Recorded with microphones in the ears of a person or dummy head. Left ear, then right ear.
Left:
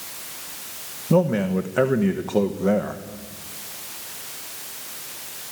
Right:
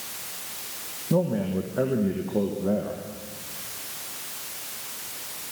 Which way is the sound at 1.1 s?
70° left (ahead or behind).